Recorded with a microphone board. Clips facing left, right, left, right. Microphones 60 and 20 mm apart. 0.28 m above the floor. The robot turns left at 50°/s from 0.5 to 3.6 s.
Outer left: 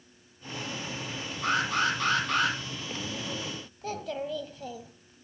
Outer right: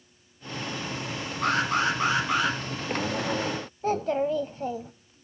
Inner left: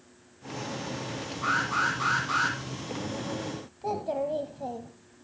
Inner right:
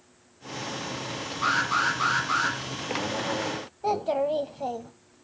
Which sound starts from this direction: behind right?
An alarm, at 1.4 s.